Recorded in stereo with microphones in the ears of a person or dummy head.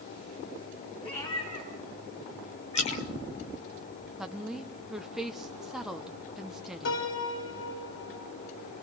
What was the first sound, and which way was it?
A cat meowing, 30° left (ahead or behind).